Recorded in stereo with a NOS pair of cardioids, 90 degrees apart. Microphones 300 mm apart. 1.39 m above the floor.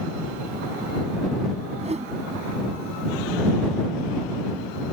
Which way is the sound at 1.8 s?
20° right.